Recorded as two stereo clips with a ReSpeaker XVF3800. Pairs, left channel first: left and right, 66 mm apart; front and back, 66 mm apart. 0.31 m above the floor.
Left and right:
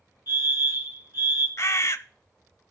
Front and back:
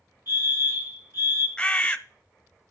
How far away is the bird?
About 0.5 m.